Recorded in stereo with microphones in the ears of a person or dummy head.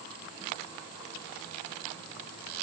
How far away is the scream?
No scream in this recording.